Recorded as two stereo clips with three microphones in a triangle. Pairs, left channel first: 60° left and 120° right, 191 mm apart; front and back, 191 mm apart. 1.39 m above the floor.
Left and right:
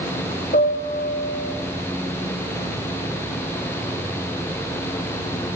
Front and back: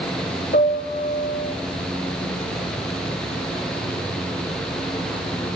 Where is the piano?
30° left, 0.7 m.